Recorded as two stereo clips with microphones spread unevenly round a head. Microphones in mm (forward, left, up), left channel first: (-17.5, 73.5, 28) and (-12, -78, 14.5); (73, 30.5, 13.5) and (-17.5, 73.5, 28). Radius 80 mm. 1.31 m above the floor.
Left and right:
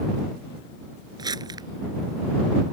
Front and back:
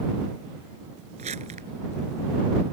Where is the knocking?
No knocking in this recording.